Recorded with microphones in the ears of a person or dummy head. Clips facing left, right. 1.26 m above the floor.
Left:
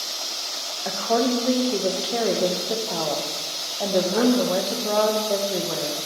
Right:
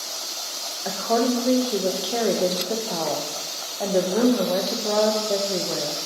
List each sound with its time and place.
0.8 s a woman speaking: centre (ahead or behind), 1.0 m